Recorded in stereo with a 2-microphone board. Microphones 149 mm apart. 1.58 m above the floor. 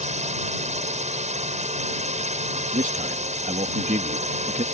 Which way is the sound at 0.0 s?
50° right (ahead or behind).